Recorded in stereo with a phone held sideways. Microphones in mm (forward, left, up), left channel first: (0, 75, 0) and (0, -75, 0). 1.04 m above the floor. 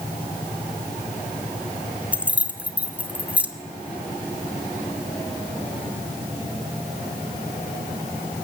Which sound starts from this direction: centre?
Keys jangling, at 2.1 s.